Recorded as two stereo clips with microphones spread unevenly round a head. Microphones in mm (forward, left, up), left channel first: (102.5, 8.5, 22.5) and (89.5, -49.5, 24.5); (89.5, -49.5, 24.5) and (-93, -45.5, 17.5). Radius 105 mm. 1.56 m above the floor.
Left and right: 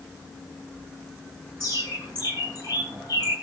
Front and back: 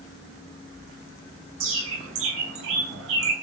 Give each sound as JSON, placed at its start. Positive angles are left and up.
{"t": 1.6, "sound": "a bird", "azimuth_deg": 175, "distance_m": 7.0}